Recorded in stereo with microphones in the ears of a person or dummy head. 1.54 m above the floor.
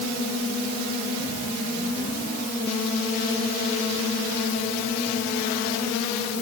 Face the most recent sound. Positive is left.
No sound to turn to.